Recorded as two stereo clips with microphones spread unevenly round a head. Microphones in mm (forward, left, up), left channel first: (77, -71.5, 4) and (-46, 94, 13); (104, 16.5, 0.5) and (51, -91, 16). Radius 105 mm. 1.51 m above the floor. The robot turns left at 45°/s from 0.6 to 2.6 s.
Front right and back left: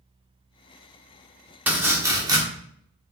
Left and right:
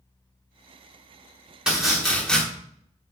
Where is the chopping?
170° right, 1.1 m; by 2.4 s 155° left, 1.1 m.